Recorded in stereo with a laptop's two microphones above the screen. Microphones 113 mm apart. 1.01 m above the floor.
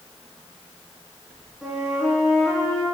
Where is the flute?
5° right (ahead or behind), 3.5 m.